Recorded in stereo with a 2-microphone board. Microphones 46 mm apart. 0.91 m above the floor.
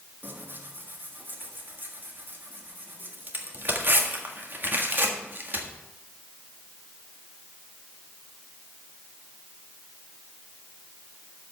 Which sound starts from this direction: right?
Tearing paper, at 0.2 s.